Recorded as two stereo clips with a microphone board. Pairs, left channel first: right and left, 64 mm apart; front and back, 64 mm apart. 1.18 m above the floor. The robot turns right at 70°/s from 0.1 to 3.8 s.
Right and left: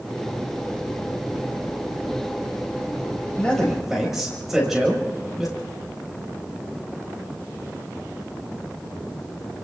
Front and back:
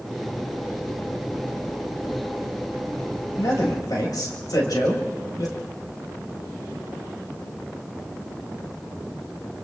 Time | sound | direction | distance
3.4 | a man speaking | 25° right | 5 m